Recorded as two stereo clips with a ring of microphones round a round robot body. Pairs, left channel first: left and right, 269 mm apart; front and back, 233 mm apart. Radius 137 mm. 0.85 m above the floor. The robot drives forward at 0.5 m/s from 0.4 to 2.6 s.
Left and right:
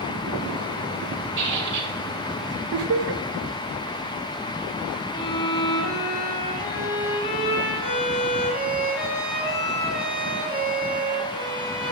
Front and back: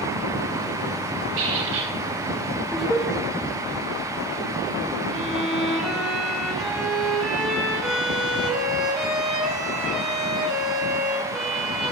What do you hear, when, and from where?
1.4 s a squeak: 140° right, 2.5 m
2.7 s laughter: 90° right, 0.8 m
5.1 s a violin: 90° left, 4.5 m